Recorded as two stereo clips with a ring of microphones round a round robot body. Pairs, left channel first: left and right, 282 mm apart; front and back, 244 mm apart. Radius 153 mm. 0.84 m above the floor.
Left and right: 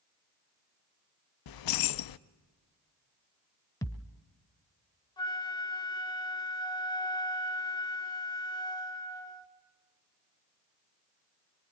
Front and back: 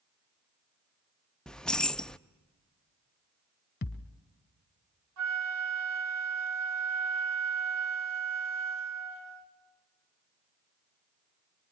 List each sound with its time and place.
1.5 s keys jangling: 85° left, 0.6 m
3.8 s a thud: 20° left, 0.9 m
5.2 s a flute: 165° left, 1.8 m